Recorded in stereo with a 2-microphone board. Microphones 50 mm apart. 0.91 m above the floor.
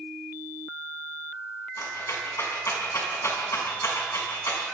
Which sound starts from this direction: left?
A rattle, at 1.8 s.